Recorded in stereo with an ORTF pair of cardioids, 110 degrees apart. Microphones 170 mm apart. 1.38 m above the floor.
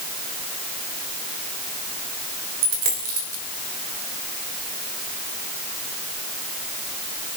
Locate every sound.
2.6 s a dropped coin: 65° right, 3 m